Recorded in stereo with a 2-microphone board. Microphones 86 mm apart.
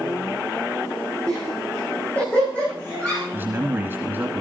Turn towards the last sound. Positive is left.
turn(degrees=-25)  # may be behind; listen again after turning